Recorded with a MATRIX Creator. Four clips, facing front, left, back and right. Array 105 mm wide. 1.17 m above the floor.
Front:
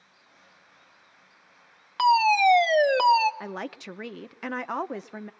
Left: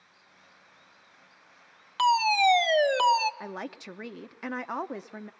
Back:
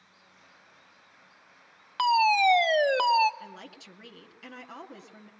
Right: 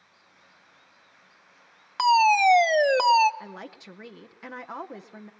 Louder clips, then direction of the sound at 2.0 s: Right 4 dB, front 3 dB; 80° right.